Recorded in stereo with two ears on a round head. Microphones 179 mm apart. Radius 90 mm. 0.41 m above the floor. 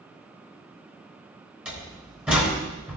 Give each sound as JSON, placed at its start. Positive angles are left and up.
{"t": 1.6, "sound": "a door slam", "side_deg": -5, "distance_m": 4.0}